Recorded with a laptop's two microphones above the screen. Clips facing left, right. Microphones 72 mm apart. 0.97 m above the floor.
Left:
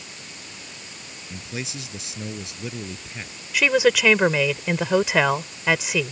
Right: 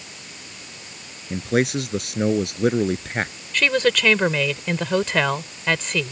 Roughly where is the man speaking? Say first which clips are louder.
Right 13 dB; right.